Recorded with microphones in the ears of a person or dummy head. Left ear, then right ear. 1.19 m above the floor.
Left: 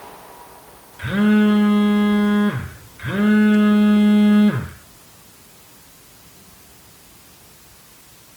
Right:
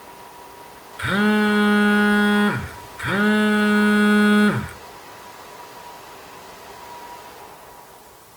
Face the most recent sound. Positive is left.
turn(degrees=-65)  # may be behind; listen again after turning